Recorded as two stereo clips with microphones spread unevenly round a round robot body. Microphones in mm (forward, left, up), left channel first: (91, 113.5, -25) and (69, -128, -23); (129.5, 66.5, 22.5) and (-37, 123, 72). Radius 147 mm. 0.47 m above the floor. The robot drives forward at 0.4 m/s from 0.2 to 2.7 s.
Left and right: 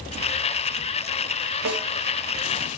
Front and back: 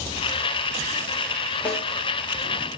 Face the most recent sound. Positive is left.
turn(degrees=-110)